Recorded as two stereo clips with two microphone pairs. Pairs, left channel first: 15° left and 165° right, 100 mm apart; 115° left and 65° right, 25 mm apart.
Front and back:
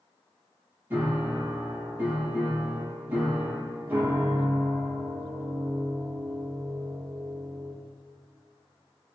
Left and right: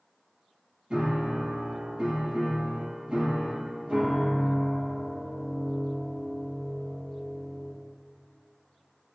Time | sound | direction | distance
0.9 | a piano | 95° right | 5.5 m